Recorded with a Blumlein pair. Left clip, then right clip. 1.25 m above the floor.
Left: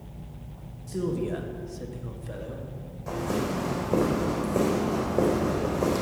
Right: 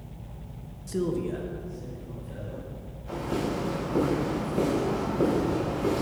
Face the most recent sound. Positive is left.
turn(degrees=55)